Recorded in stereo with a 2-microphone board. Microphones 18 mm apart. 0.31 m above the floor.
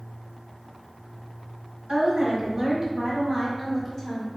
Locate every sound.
1.9 s a woman speaking: 45° right (ahead or behind), 1.5 m; by 4.3 s 20° left (ahead or behind), 1.3 m